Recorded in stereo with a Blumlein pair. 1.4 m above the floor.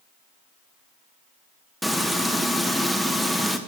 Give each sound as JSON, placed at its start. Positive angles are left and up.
{"t": 1.8, "sound": "frying", "azimuth_deg": 0, "distance_m": 0.8}